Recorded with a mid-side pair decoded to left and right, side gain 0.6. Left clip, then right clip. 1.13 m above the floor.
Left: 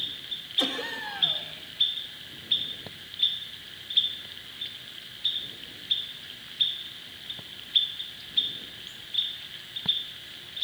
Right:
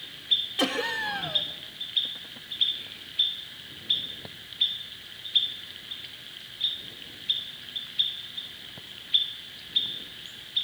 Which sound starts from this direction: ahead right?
Laughter, at 0.6 s.